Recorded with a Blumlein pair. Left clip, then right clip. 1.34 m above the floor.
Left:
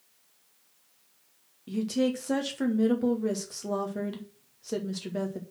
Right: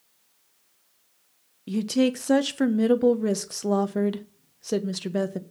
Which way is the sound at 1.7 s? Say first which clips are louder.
Right 4 dB; 70° right.